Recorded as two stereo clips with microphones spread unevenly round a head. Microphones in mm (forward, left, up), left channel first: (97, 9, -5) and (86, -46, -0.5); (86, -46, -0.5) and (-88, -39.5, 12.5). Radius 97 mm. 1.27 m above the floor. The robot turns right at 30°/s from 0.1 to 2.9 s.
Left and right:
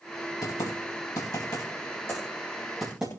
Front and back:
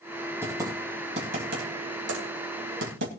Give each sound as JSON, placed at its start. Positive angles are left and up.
{"t": 0.4, "sound": "typing on a keyboard", "azimuth_deg": 100, "distance_m": 3.0}